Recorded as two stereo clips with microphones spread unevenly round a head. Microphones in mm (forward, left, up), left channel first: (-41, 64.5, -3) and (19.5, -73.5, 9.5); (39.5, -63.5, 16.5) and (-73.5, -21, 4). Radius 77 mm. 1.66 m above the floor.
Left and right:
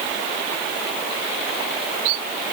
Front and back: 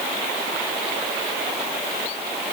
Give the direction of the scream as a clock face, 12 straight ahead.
No scream in this recording.